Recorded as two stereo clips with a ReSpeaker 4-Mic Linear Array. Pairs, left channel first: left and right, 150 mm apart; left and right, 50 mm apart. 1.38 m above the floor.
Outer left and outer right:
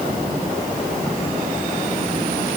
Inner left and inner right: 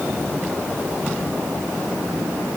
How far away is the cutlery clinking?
No cutlery clinking in this recording.